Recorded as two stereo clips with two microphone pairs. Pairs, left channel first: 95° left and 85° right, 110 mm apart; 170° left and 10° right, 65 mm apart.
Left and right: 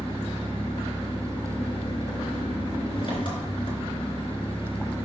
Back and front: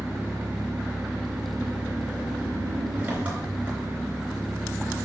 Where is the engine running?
55° left, 3 m.